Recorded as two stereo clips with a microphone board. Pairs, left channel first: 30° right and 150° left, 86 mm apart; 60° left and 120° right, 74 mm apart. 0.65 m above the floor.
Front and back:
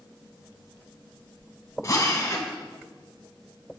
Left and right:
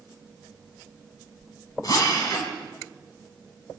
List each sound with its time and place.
1.8 s a drill: 25° left, 4.5 m